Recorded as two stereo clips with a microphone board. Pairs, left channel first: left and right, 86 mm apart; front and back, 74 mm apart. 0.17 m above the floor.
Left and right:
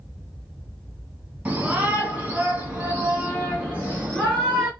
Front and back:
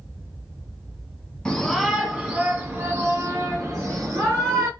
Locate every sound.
1.4 s a shout: 65° right, 1.6 m; by 4.7 s 160° right, 3 m